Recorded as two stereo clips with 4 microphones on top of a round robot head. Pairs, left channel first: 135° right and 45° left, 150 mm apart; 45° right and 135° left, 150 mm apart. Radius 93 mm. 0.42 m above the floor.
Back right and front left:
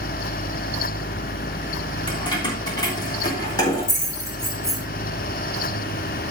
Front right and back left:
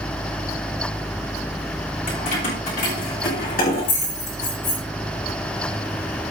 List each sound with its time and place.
2.1 s keys jangling: 80° right, 4.5 m; by 4.8 s 65° right, 6.5 m